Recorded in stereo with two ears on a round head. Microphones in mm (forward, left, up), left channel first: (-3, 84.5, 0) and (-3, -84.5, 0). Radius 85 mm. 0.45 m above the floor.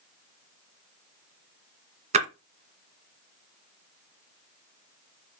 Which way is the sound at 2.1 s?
40° right (ahead or behind).